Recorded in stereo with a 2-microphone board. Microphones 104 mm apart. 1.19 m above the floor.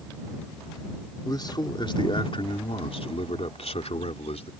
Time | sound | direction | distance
1.2 | a man speaking | 40° left (ahead or behind) | ?